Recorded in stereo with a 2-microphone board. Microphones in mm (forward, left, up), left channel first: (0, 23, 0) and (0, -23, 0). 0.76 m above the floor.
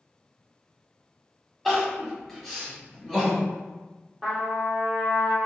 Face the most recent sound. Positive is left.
turn(degrees=0)  # may be behind; listen again after turning